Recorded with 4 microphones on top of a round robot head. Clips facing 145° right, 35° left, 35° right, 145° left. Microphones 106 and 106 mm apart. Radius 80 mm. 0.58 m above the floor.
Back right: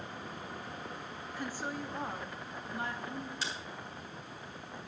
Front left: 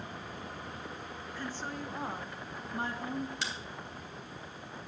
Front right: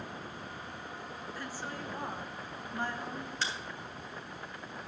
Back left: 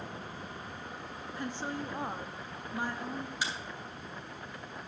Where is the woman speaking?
170° left, 1.2 m; by 3.3 s 65° left, 1.6 m.